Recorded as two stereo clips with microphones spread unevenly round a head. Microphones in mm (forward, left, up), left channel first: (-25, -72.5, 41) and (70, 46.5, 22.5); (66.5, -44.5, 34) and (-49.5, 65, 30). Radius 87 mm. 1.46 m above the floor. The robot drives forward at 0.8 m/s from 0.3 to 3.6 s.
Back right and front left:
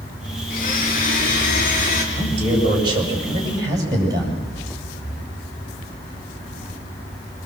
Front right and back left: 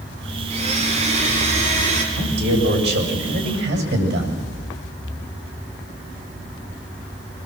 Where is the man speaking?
110° left, 6 m; by 4.5 s 120° left, 6.5 m.